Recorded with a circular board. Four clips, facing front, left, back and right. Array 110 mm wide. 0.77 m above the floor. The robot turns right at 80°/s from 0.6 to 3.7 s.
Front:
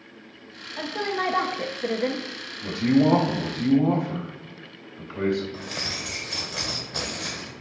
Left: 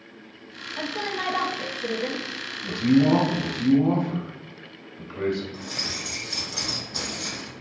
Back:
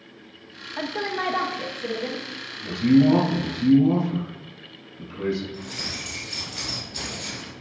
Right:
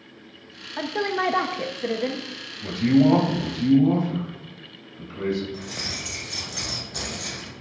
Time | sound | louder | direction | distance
0.8 | a woman speaking | right 5 dB, even | 125° right | 0.5 m
2.6 | a man speaking | right 1 dB, back 3 dB | 60° right | 2 m
5.5 | keys jangling | even, front 1 dB | 10° left | 2 m